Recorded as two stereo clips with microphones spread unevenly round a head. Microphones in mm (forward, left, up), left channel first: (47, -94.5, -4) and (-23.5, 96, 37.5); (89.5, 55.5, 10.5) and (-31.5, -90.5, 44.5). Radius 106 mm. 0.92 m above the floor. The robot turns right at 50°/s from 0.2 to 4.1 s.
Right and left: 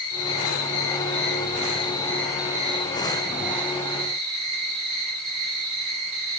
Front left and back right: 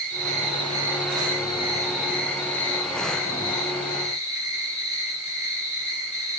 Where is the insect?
85° right, 8.5 m; by 6.4 s 110° left, 8.5 m.